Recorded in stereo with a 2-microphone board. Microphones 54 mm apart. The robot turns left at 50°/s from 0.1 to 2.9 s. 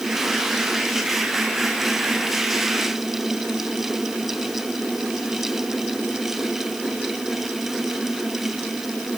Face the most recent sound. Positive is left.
No sound to turn to.